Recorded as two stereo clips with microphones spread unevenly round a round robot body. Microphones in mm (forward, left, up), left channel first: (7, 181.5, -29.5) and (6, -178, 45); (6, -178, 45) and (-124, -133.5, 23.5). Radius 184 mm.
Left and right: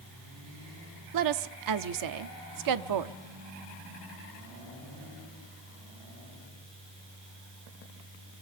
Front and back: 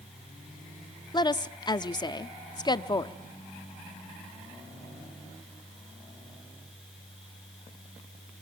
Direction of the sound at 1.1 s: 75° right.